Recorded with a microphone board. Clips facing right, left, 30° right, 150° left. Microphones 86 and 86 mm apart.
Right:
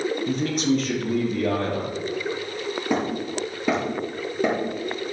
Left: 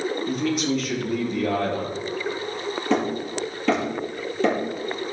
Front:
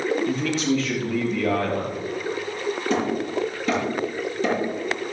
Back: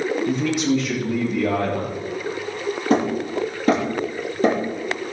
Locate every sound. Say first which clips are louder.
0.3 s a man speaking: right 2 dB, back 2 dB; 135° right, 7 m
2.9 s hammering: left 2 dB, back 5 dB; 165° right, 7.5 m